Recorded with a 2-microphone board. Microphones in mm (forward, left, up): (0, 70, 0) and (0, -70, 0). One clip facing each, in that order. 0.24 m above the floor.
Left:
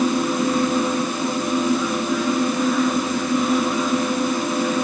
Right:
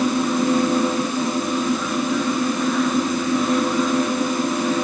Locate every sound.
Only background noise.